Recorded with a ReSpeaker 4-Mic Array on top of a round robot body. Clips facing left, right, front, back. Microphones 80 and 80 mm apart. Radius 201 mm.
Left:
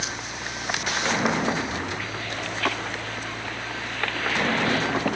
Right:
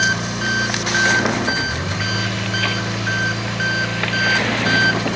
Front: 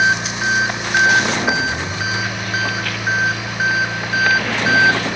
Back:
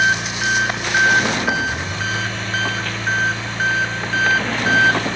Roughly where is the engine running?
Right.